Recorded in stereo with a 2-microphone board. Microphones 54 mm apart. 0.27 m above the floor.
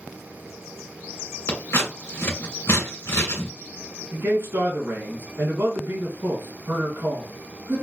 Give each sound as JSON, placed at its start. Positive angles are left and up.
{"t": 1.5, "sound": "scissors", "side_deg": 70, "distance_m": 1.9}
{"t": 4.1, "sound": "a man speaking", "side_deg": -55, "distance_m": 2.5}